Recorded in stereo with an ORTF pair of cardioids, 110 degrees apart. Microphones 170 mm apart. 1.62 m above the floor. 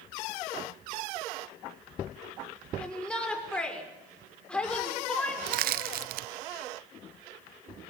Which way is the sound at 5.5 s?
60° right.